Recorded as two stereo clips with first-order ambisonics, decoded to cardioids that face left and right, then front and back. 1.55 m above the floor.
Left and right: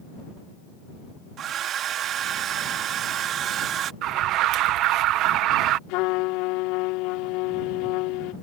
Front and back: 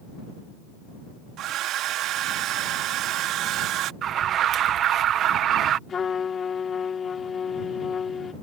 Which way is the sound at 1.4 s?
140° right.